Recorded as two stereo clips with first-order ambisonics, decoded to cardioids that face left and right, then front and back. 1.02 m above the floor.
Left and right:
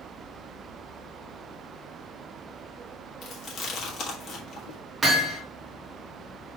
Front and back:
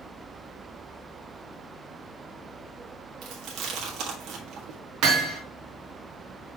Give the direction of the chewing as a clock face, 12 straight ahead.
7 o'clock.